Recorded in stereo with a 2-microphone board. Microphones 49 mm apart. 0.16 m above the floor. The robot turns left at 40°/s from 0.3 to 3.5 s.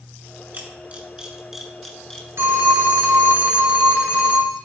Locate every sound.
0.5 s a camera shutter: 40° right (ahead or behind), 2.0 m; by 2.3 s 15° left (ahead or behind), 2.0 m
2.4 s a phone ringing: 80° right, 1.9 m; by 4.6 s 125° right, 1.9 m